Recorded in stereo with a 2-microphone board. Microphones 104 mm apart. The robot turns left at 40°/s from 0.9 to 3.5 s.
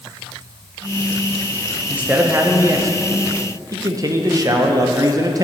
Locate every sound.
1.9 s a man speaking: 20° right, 0.8 m; by 5.5 s 85° right, 0.8 m